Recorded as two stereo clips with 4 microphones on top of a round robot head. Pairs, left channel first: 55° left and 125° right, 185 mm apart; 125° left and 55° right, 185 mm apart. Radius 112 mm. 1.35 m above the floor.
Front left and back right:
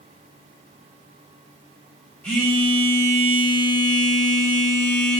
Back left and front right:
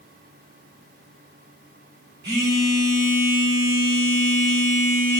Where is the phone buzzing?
30° right, 5.5 m.